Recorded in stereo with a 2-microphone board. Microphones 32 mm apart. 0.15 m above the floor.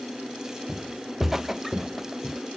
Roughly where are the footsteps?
Centre.